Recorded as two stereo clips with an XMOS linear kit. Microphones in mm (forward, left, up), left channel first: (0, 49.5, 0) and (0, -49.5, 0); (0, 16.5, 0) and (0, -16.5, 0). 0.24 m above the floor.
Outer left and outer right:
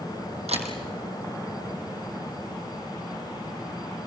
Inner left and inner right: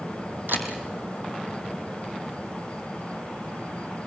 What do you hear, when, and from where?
0.5 s a camera shutter: 85° right, 3 m